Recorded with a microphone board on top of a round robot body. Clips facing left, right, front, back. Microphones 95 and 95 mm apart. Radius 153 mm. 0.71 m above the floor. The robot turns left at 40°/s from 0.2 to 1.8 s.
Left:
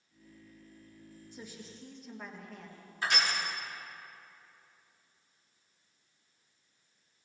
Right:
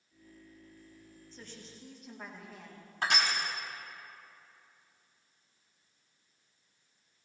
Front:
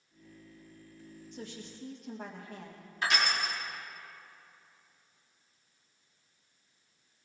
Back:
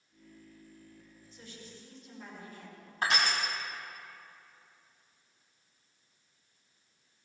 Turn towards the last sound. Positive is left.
turn(degrees=-125)